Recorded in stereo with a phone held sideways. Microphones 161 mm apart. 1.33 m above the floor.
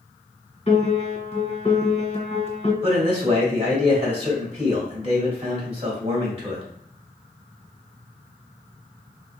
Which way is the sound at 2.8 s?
35° right (ahead or behind).